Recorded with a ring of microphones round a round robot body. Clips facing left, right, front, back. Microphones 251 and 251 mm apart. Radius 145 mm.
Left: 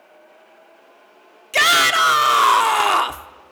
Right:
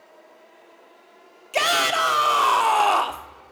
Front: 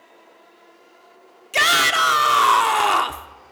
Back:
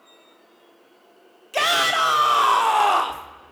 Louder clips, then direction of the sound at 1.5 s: Left 1 dB, even; 40° left.